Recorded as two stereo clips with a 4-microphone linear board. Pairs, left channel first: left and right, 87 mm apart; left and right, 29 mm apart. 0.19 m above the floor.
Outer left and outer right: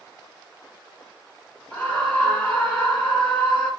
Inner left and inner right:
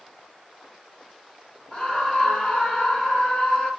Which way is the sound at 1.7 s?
15° left (ahead or behind).